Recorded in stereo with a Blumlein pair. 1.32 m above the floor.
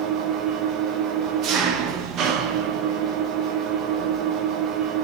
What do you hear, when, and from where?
0.0 s an engine running: 35° right, 1.2 m